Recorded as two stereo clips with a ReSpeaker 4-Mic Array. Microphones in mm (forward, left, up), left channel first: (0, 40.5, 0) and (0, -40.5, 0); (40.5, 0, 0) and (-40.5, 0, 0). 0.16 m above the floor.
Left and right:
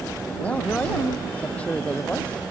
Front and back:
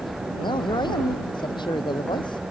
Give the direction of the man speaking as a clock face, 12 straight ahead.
11 o'clock.